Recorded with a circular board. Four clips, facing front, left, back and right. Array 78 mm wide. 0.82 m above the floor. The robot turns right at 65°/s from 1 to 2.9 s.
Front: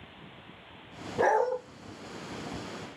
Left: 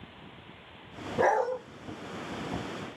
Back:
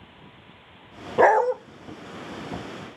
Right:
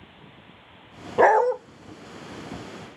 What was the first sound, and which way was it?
A dog barking, 140° right.